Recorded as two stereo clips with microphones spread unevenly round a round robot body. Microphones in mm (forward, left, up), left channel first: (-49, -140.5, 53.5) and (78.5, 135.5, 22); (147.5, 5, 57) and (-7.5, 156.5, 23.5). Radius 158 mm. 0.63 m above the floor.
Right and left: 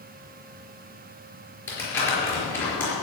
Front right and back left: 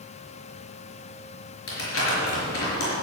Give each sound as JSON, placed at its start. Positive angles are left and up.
{"t": 1.7, "sound": "crumpling", "azimuth_deg": -30, "distance_m": 5.0}